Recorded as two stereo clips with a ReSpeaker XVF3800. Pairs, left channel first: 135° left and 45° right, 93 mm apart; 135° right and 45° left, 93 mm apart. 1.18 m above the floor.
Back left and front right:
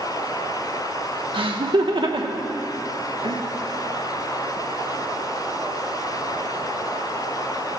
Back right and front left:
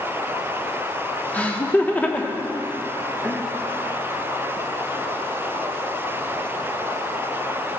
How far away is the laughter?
About 1.0 m.